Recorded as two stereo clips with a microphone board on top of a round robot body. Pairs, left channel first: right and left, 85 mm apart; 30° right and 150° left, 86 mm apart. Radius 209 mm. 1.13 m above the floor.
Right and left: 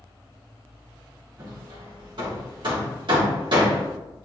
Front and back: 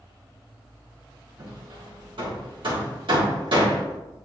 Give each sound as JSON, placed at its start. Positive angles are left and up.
{"t": 1.4, "sound": "hammering", "azimuth_deg": 125, "distance_m": 1.8}